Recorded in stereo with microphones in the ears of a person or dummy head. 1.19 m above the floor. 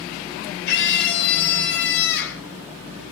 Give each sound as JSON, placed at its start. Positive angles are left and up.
{"t": 0.7, "sound": "a scream", "side_deg": 60, "distance_m": 4.5}